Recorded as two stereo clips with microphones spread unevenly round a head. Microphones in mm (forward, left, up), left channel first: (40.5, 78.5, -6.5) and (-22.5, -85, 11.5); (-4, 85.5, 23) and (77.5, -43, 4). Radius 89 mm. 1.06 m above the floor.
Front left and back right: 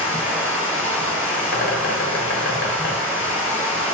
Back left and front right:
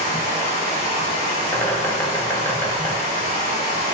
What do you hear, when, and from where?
0.0 s running water: 155° left, 1.5 m
1.5 s a bird: 50° left, 0.8 m